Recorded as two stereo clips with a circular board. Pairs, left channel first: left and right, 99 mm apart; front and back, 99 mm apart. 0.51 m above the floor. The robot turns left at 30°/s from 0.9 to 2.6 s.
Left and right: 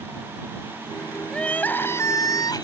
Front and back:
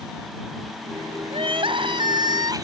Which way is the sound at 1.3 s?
170° left.